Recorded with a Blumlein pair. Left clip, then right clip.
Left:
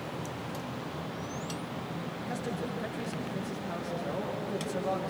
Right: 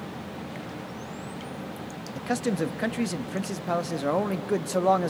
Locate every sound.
2.1 s a man speaking: 55° right, 1.3 m